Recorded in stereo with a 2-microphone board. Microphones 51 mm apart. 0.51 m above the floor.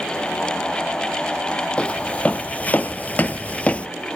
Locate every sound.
1.8 s footsteps: 25° left (ahead or behind), 0.9 m